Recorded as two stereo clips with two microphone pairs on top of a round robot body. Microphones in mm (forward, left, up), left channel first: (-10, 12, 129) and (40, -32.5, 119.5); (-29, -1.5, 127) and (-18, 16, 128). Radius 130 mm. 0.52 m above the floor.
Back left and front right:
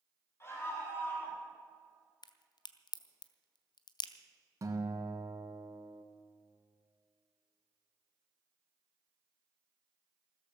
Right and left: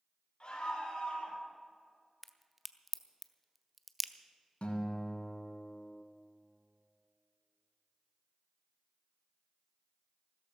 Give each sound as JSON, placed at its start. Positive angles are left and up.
{"t": 0.4, "sound": "a scream", "azimuth_deg": -165, "distance_m": 7.0}
{"t": 2.2, "sound": "a crack", "azimuth_deg": 145, "distance_m": 0.9}
{"t": 4.6, "sound": "a guitar", "azimuth_deg": -90, "distance_m": 2.0}